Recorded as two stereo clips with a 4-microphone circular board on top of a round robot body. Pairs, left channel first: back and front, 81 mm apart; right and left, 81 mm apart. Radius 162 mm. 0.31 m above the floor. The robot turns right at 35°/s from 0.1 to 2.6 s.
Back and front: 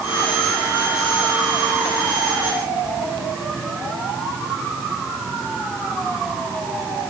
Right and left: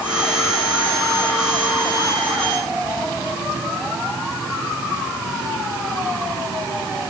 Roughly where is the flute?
I don't hear a flute.